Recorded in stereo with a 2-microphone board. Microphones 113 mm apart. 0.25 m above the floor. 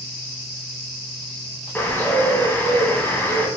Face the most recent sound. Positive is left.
turn(degrees=20)  # may be behind; listen again after turning